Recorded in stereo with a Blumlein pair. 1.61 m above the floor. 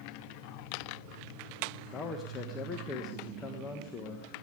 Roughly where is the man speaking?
Ahead.